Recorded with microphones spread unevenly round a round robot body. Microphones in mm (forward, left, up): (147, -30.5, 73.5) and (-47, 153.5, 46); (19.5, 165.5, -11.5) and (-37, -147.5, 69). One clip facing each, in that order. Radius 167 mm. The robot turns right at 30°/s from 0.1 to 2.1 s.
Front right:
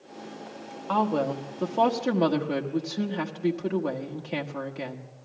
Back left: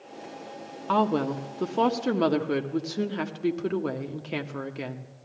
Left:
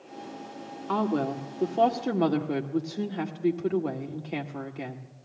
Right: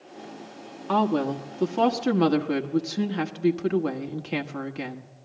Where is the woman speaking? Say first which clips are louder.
Back left 1 dB, right 3 dB; 165° left, 1.5 m; by 5.1 s 160° right, 1.5 m.